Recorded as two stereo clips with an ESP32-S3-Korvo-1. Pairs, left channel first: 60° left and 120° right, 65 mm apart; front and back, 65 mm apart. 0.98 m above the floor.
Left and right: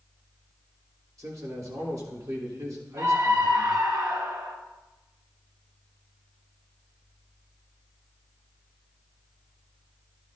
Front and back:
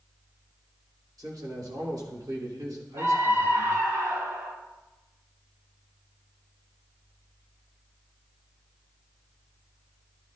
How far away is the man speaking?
About 3 m.